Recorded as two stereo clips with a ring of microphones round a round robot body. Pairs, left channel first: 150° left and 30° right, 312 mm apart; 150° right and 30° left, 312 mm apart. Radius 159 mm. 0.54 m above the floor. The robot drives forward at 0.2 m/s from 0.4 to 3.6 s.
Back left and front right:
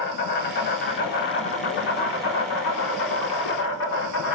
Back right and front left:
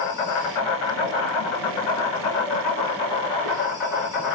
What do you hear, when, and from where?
0.0 s an insect: 150° right, 0.8 m; by 4.3 s 165° right, 1.4 m